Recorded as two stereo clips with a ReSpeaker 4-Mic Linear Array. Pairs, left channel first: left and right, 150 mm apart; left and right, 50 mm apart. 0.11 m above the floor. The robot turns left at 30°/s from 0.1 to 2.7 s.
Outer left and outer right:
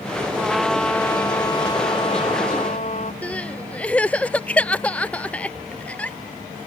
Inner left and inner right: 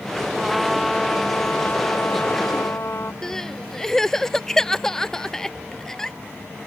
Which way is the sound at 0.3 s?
170° right.